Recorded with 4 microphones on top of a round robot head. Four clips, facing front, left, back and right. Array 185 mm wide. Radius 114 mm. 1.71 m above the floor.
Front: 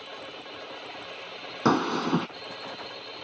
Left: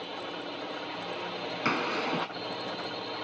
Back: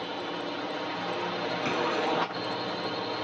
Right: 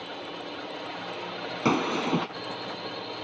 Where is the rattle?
I don't hear a rattle.